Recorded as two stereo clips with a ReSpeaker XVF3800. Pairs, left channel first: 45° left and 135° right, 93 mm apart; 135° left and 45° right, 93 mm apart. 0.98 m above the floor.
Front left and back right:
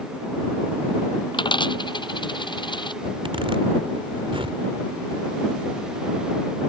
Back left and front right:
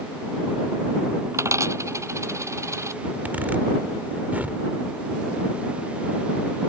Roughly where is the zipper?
Behind right.